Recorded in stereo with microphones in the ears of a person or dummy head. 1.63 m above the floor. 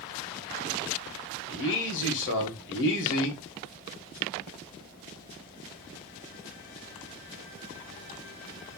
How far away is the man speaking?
About 1.6 m.